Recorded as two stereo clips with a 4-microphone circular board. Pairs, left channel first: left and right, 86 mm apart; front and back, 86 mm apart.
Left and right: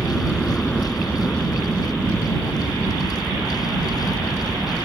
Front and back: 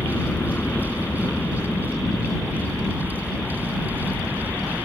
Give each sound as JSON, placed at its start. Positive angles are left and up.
{"t": 0.0, "sound": "a helicopter", "azimuth_deg": 25}